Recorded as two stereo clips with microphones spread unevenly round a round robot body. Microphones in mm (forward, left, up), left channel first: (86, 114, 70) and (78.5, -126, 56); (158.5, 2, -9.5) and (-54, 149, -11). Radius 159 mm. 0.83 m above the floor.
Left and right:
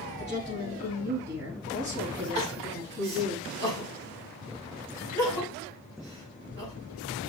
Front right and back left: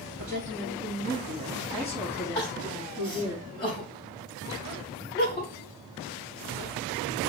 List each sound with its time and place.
0.2 s a woman speaking: 160° right, 5 m; by 3.4 s 130° right, 5 m
2.4 s crying: 120° right, 5.5 m